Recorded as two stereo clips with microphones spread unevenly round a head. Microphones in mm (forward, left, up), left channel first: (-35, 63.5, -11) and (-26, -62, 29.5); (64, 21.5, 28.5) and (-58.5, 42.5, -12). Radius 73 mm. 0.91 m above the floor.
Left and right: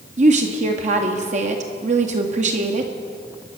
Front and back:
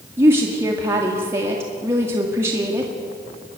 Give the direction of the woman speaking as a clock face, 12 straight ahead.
4 o'clock.